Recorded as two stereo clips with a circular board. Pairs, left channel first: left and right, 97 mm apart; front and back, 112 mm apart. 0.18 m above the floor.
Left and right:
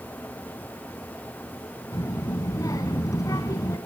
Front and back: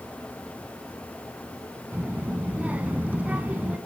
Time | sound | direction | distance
1.9 | a child speaking | 110° left | 1.0 m